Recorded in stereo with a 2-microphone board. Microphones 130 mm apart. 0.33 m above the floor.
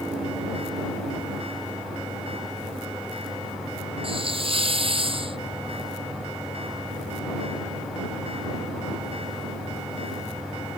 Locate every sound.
4.0 s a hiss: 45° right (ahead or behind)